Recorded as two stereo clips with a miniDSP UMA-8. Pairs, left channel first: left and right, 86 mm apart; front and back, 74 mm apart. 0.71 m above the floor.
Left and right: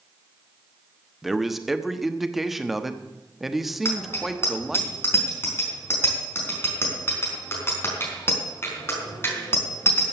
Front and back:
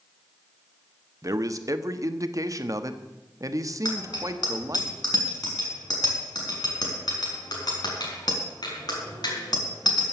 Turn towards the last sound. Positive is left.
turn(degrees=25)